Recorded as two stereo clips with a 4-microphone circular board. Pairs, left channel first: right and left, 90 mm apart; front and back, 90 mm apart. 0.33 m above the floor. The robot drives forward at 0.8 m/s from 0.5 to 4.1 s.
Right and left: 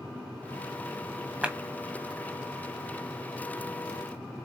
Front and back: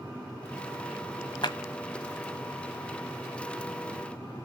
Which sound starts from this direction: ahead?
A clap, at 1.4 s.